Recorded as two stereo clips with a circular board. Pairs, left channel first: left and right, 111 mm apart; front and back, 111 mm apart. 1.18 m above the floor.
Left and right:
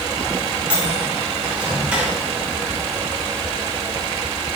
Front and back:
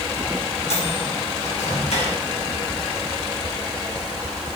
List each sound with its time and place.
0.7 s a microwave: 10° right, 4 m